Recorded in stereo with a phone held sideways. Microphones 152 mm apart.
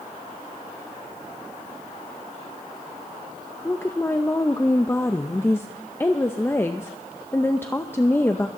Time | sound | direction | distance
3.6 | a woman speaking | 15° left (ahead or behind) | 0.7 m